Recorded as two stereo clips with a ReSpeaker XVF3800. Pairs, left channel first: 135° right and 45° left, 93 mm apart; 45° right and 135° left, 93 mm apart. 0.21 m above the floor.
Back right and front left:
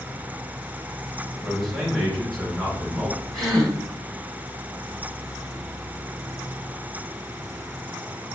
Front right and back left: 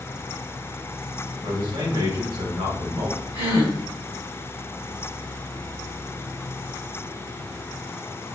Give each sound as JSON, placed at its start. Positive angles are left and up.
{"t": 1.4, "sound": "a man speaking", "azimuth_deg": 140, "distance_m": 2.5}
{"t": 3.3, "sound": "a gasp", "azimuth_deg": 135, "distance_m": 3.0}